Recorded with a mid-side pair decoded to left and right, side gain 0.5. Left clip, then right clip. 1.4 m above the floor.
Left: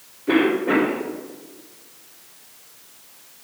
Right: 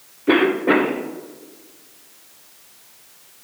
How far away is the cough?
About 1.0 m.